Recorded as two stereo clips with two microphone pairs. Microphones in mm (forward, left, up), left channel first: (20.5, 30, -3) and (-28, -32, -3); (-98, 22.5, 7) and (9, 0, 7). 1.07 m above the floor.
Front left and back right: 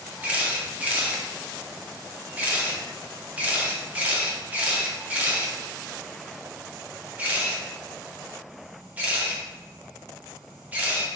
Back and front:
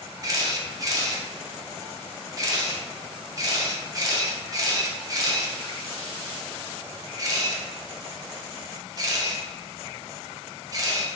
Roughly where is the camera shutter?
Ahead right.